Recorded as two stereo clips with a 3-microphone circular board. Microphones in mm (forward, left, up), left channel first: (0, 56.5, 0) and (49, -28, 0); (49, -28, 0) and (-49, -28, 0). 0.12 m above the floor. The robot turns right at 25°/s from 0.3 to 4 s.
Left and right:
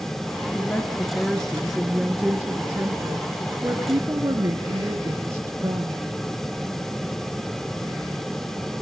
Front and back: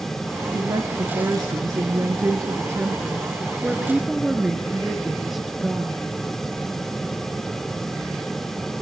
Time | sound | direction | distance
0.5 | a woman speaking | straight behind | 2 m